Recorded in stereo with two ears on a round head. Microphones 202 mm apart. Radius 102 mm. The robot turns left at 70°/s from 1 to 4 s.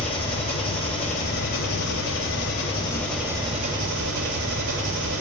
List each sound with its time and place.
0.0 s an engine running: 150° left, 2.5 m; by 5.2 s 60° right, 2.5 m